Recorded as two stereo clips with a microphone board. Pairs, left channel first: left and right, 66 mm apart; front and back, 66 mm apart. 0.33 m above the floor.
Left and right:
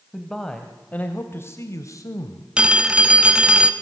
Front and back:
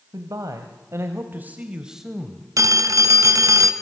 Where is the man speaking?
175° left, 2 m; by 2.5 s 80° left, 2 m.